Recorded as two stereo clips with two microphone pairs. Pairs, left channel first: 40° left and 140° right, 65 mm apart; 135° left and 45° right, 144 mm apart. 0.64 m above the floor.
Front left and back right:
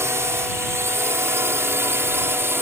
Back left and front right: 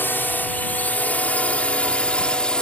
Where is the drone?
150° right; by 2.6 s 145° right.